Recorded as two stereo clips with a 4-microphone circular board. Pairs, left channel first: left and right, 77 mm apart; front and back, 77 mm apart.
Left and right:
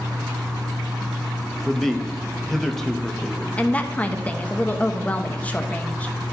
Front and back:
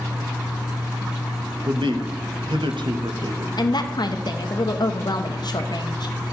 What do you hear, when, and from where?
1.6 s a man speaking: 175° left, 1.1 m
3.6 s a woman speaking: 20° left, 1.0 m